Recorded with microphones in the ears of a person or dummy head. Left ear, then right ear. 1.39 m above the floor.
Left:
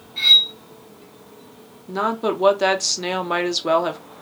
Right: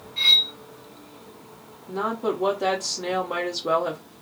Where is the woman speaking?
70° left (ahead or behind), 0.9 m.